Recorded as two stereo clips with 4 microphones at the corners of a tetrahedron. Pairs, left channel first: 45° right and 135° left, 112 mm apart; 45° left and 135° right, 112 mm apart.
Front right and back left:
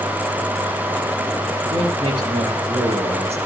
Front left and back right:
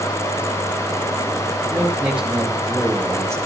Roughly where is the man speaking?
Behind left.